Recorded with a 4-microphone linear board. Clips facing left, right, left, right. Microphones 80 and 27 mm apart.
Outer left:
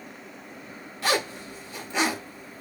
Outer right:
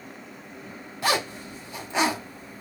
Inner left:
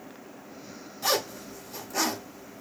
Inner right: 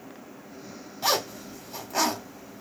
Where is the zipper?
20° right (ahead or behind), 1.7 m.